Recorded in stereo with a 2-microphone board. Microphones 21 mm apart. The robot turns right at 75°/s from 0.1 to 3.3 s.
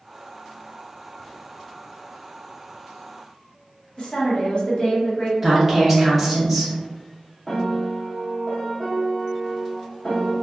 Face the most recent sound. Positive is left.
turn(degrees=15)  # may be behind; listen again after turning